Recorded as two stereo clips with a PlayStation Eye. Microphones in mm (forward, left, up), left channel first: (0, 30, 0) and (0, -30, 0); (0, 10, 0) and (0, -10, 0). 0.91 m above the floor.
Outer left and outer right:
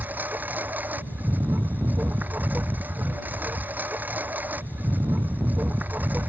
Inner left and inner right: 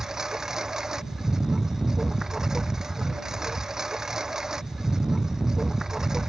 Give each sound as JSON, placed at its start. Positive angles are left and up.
{"t": 0.0, "sound": "a lawn mower", "side_deg": -30}